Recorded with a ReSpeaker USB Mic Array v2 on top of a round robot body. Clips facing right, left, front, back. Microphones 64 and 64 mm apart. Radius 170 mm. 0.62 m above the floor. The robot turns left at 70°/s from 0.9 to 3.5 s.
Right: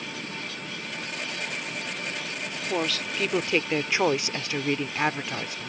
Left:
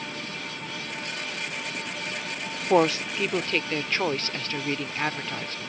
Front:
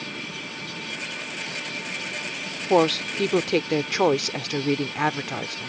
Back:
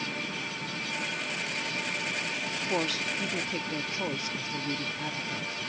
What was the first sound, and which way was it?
A woman speaking, 45° left.